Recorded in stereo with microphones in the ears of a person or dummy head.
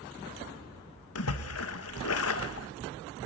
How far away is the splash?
About 1.6 m.